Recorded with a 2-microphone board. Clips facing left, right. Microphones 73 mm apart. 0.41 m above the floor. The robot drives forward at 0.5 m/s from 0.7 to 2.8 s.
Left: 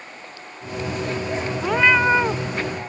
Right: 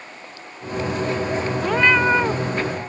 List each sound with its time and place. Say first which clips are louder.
1.6 s a cat meowing: left 1 dB; 5° left (ahead or behind)